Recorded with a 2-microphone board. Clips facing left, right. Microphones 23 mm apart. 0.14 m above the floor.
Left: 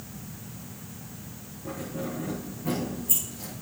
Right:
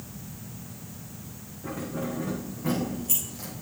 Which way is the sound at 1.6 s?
65° right (ahead or behind).